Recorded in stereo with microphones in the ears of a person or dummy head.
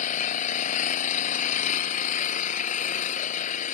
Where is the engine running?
40° left (ahead or behind).